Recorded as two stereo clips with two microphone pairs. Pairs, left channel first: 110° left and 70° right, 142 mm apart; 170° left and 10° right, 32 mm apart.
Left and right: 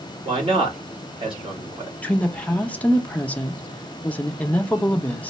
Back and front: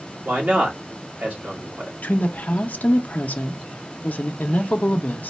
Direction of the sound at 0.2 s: 20° right.